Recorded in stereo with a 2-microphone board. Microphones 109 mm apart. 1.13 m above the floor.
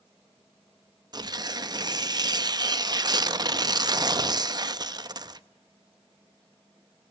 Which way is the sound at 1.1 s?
40° right (ahead or behind).